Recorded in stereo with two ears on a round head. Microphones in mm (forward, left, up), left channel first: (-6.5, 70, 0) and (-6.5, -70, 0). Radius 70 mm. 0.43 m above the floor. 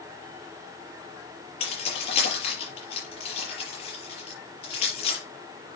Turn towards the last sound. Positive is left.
turn(degrees=40)  # may be behind; listen again after turning